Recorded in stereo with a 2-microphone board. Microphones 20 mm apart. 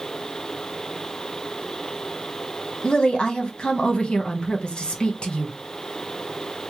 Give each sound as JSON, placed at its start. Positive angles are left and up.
{"t": 2.8, "sound": "a woman speaking", "side_deg": 55, "distance_m": 1.0}